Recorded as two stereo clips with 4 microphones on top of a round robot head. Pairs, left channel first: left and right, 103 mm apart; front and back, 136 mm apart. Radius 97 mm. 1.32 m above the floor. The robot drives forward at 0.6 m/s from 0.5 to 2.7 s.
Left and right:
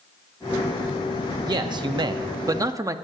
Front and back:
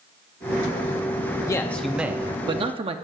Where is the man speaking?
60° right, 0.6 m; by 3.0 s 140° right, 0.8 m.